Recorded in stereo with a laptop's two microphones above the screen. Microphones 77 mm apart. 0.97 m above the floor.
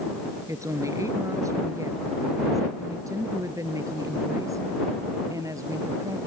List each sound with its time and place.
0.5 s a woman speaking: 45° right (ahead or behind); by 6.2 s 50° right (ahead or behind)